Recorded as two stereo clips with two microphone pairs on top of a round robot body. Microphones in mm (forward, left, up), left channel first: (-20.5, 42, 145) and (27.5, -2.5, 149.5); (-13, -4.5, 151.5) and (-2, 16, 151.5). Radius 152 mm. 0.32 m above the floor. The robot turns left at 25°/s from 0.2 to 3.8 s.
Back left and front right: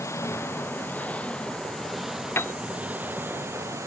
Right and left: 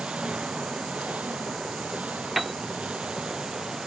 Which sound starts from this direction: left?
An engine running, at 0.0 s.